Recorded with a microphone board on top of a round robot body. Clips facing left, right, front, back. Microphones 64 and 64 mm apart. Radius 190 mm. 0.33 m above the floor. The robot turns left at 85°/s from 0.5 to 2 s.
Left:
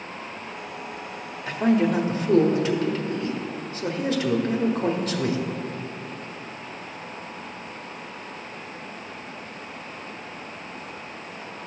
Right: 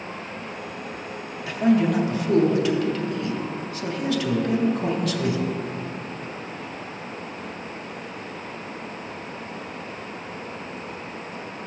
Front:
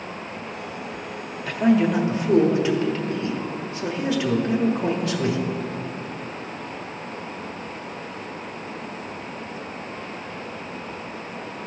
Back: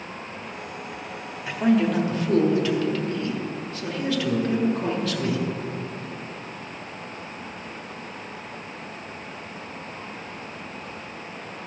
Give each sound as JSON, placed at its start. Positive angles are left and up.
{"t": 1.5, "sound": "a man speaking", "azimuth_deg": 110, "distance_m": 1.6}